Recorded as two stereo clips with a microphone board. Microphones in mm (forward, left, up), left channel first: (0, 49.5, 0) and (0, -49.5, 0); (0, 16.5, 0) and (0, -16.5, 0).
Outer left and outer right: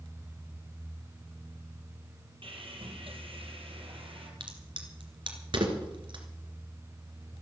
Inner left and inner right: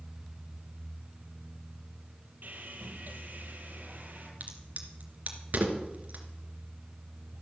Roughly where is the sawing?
Right.